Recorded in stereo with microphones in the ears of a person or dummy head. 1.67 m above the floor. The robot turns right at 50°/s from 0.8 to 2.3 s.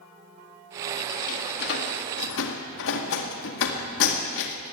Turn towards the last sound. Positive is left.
turn(degrees=65)  # may be behind; listen again after turning